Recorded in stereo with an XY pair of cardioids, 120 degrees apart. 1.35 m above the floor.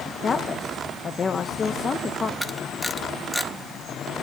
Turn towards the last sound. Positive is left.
turn(degrees=0)